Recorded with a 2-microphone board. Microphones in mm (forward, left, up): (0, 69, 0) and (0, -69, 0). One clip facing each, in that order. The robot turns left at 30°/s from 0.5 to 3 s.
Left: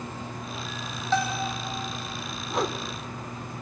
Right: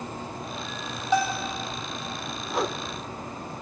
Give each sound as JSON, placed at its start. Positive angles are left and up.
{"t": 1.1, "sound": "a bell", "side_deg": -15, "distance_m": 4.0}
{"t": 2.5, "sound": "a whoosh", "side_deg": -5, "distance_m": 1.1}